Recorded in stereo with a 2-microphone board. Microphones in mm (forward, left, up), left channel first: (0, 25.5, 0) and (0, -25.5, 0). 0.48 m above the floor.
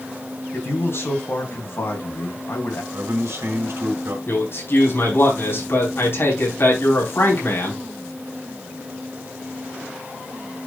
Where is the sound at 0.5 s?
60° left (ahead or behind), 3.5 m.